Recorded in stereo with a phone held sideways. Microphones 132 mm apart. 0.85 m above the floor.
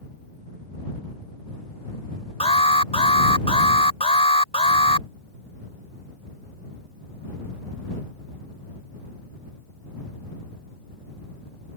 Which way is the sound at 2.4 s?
50° left (ahead or behind).